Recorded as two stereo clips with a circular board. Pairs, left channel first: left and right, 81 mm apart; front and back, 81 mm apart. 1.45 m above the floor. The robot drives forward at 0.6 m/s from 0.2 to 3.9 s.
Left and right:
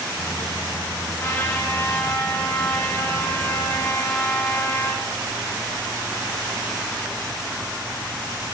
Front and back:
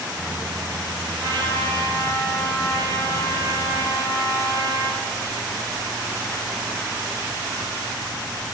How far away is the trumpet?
About 7 m.